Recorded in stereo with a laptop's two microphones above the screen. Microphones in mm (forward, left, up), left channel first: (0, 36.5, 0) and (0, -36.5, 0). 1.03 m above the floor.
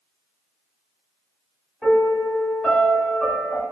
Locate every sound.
1.8 s a piano: centre (ahead or behind), 1.0 m